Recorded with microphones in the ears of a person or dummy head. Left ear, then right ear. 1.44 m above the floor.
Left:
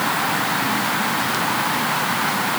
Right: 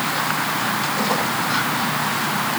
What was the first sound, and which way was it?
Only background noise.